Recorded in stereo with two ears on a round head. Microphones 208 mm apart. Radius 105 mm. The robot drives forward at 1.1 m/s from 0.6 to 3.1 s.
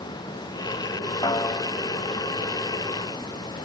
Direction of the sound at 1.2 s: 15° left (ahead or behind).